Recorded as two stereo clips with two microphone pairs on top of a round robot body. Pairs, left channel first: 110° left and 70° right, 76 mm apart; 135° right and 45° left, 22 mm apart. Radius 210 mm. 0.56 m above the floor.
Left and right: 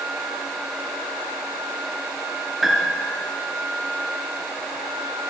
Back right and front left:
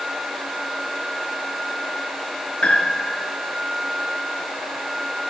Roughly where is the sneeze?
No sneeze in this recording.